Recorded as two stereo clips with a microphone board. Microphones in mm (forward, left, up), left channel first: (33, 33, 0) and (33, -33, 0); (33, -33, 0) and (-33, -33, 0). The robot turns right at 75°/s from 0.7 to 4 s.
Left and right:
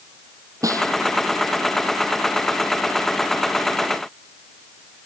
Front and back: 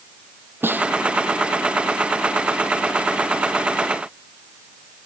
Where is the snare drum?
125° right; by 0.9 s 105° right.